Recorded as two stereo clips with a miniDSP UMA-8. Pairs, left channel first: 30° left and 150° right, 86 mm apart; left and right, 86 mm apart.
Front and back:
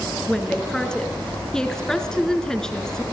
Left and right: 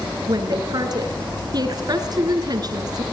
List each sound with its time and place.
0.3 s a woman speaking: 55° right, 4 m